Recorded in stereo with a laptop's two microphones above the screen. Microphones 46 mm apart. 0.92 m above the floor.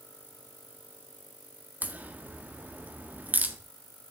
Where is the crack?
40° right (ahead or behind), 1.4 m.